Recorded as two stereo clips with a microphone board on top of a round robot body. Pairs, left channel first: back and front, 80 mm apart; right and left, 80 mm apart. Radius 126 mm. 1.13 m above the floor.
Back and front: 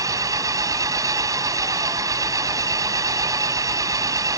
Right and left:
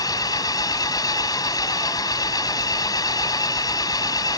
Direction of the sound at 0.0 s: 45° right.